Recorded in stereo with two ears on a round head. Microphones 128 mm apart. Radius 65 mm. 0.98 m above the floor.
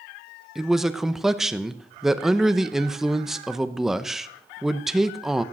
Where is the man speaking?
5° right (ahead or behind), 0.8 m.